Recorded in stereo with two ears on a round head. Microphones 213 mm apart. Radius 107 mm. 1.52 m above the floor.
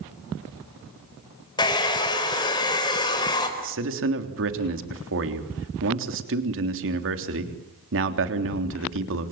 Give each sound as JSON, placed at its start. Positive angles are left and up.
{"t": 1.6, "sound": "a hair dryer", "side_deg": 20, "distance_m": 4.5}
{"t": 3.6, "sound": "a man speaking", "side_deg": -55, "distance_m": 3.5}